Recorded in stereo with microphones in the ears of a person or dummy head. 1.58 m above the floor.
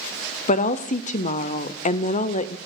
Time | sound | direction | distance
0.5 | a woman speaking | 45° left (ahead or behind) | 0.5 m